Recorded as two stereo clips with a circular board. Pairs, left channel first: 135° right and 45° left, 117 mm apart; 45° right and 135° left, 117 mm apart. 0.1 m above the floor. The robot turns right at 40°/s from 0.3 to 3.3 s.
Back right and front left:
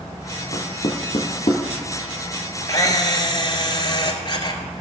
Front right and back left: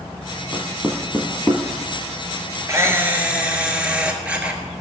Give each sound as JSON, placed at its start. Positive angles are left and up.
{"t": 0.5, "sound": "knocking", "azimuth_deg": -150, "distance_m": 1.7}
{"t": 2.7, "sound": "a camera shutter", "azimuth_deg": -175, "distance_m": 1.3}